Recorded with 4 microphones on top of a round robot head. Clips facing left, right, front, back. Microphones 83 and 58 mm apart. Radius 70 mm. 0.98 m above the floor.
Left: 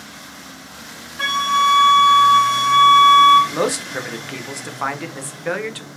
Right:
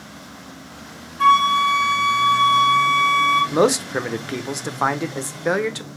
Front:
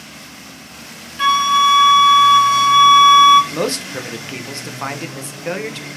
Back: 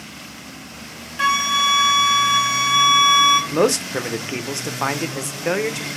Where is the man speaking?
130° right, 0.6 m.